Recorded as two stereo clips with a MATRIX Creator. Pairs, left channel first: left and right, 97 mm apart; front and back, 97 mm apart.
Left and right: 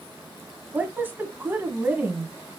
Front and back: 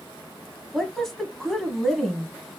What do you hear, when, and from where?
0.7 s a woman speaking: 80° right, 1.0 m